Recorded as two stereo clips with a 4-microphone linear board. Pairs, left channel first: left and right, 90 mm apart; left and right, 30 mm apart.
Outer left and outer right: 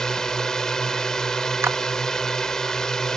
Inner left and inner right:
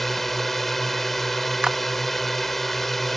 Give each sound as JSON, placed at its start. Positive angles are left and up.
{"t": 0.0, "sound": "a drone", "side_deg": 5}
{"t": 1.6, "sound": "a clap", "side_deg": -30}